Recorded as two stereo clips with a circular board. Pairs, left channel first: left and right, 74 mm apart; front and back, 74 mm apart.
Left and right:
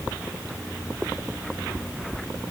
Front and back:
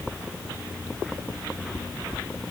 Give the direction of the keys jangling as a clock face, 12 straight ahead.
No keys jangling in this recording.